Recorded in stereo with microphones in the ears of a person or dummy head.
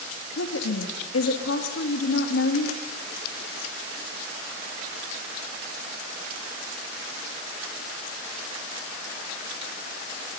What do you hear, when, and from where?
0.4 s a woman speaking: 80° left, 2.5 m